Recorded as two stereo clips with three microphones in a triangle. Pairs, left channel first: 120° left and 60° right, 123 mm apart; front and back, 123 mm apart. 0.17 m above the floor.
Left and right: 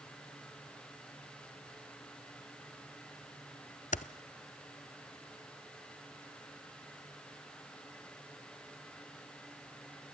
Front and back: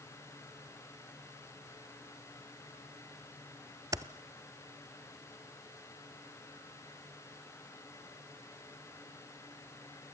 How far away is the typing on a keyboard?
About 0.5 m.